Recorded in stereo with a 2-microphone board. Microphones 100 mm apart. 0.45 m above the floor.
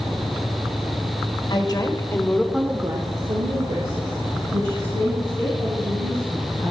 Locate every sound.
1.5 s a woman speaking: 50° left (ahead or behind), 1.7 m; by 6.7 s 80° right, 5.5 m